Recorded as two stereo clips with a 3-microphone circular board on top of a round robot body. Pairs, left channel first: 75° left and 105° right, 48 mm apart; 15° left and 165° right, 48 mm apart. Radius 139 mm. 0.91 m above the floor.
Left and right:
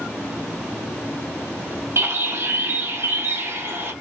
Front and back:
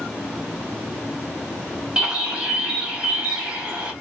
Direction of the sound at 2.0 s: 95° right.